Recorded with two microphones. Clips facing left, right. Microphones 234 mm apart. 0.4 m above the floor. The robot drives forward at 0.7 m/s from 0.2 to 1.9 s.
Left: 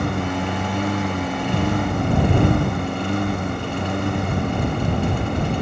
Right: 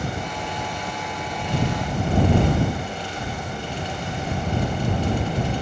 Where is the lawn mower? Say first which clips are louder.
Left 7 dB; 70° left (ahead or behind); by 5.6 s 65° left (ahead or behind).